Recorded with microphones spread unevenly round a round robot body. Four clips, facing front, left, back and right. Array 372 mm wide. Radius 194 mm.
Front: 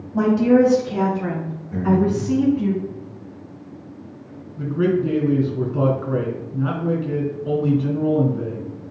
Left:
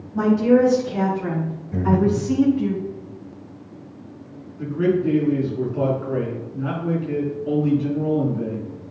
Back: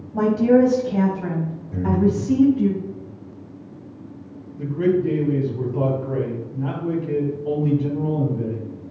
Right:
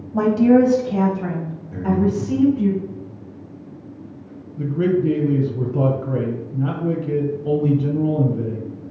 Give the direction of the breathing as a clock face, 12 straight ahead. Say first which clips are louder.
Left 1 dB, front 1 dB; 9 o'clock.